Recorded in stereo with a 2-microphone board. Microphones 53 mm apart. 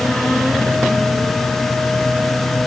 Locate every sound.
Only background noise.